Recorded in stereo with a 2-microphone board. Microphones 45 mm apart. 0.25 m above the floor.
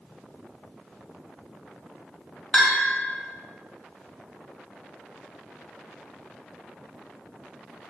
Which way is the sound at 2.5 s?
10° left (ahead or behind).